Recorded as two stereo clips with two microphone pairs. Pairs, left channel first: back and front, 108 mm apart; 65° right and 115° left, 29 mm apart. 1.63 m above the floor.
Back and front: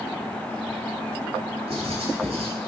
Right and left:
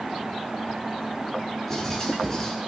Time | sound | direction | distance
1.7 | writing | 10° left | 7 m